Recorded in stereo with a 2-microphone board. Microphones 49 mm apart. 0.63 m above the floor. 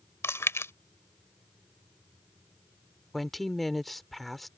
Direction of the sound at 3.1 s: 5° left (ahead or behind).